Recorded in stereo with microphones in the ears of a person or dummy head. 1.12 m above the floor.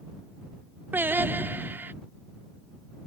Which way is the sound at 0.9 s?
10° right (ahead or behind).